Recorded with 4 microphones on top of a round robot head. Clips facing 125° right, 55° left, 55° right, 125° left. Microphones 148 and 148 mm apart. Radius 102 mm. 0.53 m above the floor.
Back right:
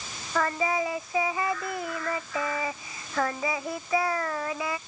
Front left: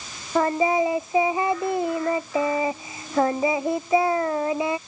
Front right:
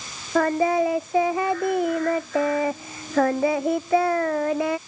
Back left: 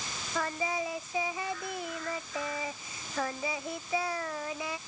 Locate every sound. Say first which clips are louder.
0.3 s singing: front left 7 dB, front right 13 dB; 15° right